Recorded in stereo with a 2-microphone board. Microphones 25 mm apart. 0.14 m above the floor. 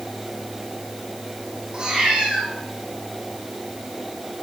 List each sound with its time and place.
1.7 s a cat meowing: 30° right (ahead or behind), 4 m